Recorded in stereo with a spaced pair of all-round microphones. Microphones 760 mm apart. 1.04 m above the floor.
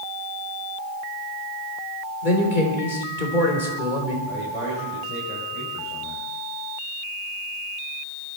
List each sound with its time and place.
2.2 s a man speaking: 85° left, 3.5 m
4.3 s a man speaking: 45° right (ahead or behind), 4.5 m